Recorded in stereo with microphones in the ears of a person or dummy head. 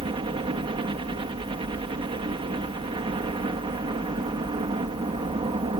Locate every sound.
0.0 s a helicopter: 25° right (ahead or behind)